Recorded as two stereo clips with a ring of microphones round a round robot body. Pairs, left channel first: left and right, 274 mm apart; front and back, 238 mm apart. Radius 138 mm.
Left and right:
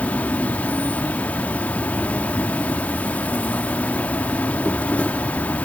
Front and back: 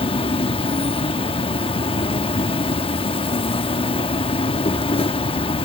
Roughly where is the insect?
Ahead.